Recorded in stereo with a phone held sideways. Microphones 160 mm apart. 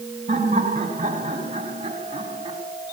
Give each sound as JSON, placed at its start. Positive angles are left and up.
{"t": 0.3, "sound": "laughter", "side_deg": -45, "distance_m": 9.0}